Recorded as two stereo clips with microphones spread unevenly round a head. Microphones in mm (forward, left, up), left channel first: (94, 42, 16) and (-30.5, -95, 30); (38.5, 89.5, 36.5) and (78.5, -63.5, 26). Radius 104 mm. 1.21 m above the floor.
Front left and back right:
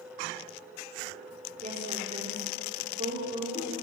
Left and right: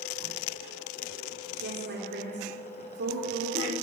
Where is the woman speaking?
75° right, 3.5 m.